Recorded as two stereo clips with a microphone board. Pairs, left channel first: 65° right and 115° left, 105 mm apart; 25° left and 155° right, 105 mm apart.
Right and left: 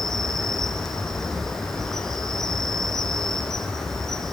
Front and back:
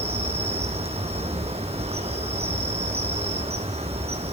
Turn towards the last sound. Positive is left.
turn(degrees=-155)